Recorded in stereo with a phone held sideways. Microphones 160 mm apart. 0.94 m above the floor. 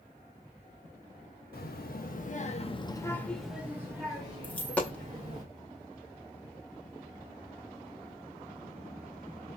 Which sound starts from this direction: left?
A child speaking, at 1.5 s.